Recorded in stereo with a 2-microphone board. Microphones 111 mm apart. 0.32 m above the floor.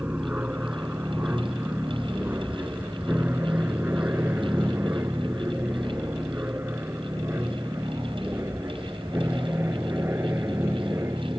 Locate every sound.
0.0 s an aircraft: 15° right (ahead or behind); by 11.4 s 25° right (ahead or behind)